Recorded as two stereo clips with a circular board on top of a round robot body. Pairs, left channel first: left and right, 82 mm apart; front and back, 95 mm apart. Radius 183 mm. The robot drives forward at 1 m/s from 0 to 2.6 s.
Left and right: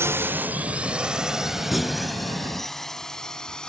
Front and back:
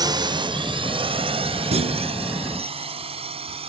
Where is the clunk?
Straight behind.